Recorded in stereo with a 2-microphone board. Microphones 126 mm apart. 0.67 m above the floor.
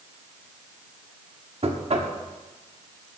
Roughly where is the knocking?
Right.